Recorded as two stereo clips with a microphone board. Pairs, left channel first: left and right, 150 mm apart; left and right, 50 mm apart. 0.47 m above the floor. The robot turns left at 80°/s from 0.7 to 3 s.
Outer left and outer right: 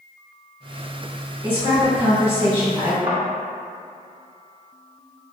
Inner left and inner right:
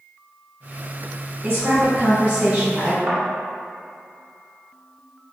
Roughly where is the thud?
Centre.